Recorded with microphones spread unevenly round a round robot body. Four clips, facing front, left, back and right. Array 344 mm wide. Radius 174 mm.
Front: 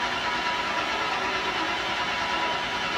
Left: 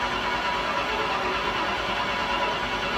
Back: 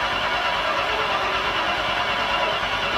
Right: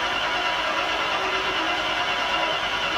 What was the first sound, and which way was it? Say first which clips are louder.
An engine running: right 1 dB, back 4 dB; 165° left.